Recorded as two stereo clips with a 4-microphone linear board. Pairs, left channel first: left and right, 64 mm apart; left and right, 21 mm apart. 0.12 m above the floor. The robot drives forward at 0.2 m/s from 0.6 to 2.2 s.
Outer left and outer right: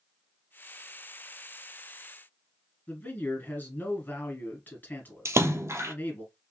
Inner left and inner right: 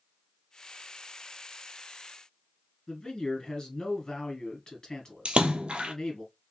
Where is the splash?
45° right (ahead or behind), 0.5 m.